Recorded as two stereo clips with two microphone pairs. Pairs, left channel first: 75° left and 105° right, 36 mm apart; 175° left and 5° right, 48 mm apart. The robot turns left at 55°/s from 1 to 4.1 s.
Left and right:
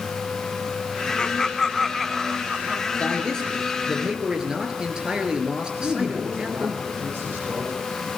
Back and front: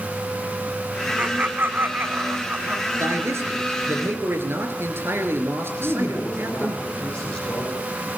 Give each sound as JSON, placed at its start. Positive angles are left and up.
{"t": 1.2, "sound": "laughter", "azimuth_deg": 30, "distance_m": 1.3}
{"t": 3.0, "sound": "a man speaking", "azimuth_deg": 25, "distance_m": 4.0}
{"t": 5.7, "sound": "a man speaking", "azimuth_deg": -115, "distance_m": 7.5}